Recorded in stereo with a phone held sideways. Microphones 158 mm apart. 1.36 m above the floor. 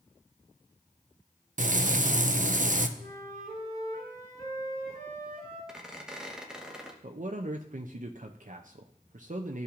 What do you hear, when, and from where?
1.6 s frying: 55° right (ahead or behind), 0.5 m
3.0 s a flute: 30° left (ahead or behind), 4 m
5.7 s a squeak: 5° right (ahead or behind), 1.1 m
7.0 s a man speaking: 55° right (ahead or behind), 0.5 m